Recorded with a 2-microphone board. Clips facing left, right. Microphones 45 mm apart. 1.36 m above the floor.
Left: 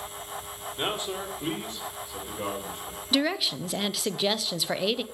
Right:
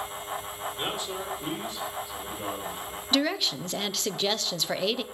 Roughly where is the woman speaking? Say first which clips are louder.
Even; centre.